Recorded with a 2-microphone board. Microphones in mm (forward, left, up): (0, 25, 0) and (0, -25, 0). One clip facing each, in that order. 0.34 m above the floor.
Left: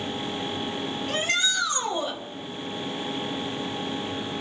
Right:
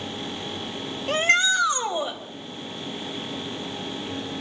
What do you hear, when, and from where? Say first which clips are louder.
1.1 s a shout: right 7 dB; 45° right (ahead or behind), 1.8 m; by 2.2 s 10° right (ahead or behind), 1.7 m